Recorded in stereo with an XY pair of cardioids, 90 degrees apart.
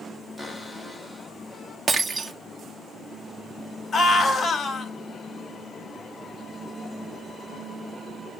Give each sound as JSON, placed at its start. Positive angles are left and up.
{"t": 0.4, "sound": "a cupboard door", "azimuth_deg": 5, "distance_m": 5.0}
{"t": 1.9, "sound": "breaking glass", "azimuth_deg": -35, "distance_m": 1.8}
{"t": 3.9, "sound": "a scream", "azimuth_deg": 35, "distance_m": 6.0}